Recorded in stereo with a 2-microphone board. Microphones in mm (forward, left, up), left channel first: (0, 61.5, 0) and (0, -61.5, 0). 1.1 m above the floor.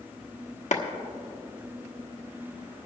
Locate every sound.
0.7 s a clap: 75° left (ahead or behind), 1.2 m